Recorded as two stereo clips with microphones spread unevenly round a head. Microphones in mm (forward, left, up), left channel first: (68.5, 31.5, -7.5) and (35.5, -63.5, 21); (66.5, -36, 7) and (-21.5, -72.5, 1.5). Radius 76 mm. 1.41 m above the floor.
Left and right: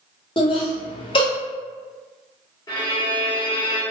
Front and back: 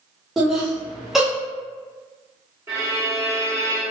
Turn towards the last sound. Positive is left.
turn(degrees=130)